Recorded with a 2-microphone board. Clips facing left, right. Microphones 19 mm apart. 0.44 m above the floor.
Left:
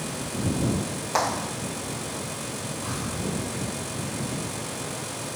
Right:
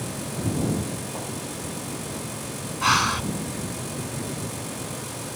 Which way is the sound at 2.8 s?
75° right (ahead or behind).